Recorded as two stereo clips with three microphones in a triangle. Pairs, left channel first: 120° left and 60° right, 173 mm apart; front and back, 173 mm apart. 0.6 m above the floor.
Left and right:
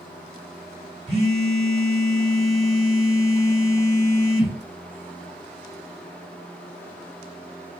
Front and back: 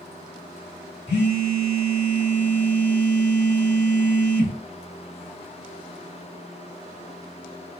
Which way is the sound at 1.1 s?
5° right.